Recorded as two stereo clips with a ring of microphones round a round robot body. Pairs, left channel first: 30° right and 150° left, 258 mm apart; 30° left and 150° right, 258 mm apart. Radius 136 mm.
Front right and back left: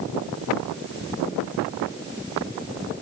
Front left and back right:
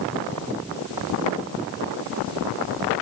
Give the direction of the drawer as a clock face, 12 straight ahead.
I don't hear a drawer.